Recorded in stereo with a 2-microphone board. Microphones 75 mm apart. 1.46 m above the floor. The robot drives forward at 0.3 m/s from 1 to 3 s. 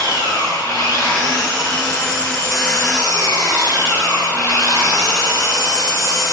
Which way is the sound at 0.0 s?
60° left (ahead or behind).